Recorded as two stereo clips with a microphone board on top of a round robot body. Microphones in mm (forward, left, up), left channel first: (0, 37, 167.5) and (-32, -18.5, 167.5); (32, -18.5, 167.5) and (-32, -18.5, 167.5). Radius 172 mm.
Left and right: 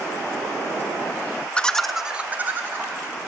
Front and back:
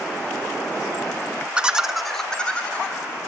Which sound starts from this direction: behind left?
Laughter, at 1.6 s.